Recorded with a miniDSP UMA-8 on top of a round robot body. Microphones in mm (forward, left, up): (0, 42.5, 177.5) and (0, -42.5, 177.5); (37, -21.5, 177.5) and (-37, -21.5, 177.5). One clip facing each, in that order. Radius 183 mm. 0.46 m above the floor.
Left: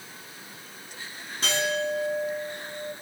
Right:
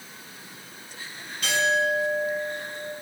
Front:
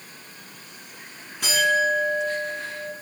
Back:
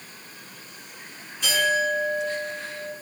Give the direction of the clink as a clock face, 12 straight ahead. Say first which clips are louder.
Right 4 dB, front 2 dB; 11 o'clock.